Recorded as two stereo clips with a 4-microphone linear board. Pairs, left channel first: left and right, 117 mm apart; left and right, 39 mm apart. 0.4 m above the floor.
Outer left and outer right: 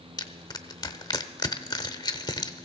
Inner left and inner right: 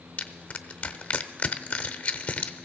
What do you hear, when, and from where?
0.2 s crushing: 35° left (ahead or behind), 0.7 m